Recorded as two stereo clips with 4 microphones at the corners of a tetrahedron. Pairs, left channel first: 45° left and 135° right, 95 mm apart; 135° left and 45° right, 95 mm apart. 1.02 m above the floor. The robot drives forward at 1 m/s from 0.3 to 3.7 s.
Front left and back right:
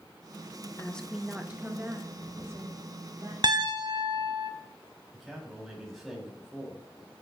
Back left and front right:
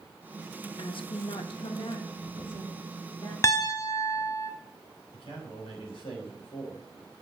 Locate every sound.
0.8 s a woman speaking: 110° left, 0.7 m; by 3.3 s 170° left, 3 m
3.4 s a piano: 170° right, 0.6 m; by 4.5 s 175° right, 0.8 m
5.1 s a man speaking: 135° left, 3.5 m